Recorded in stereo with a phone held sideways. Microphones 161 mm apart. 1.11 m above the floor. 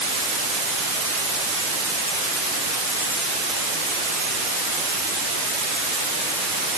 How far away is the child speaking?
I don't hear a child speaking.